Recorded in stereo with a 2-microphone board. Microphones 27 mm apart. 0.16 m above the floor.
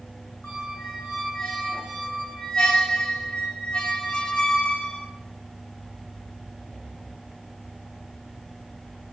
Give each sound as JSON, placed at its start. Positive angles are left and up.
{"t": 0.4, "sound": "a squeak", "side_deg": 45, "distance_m": 0.8}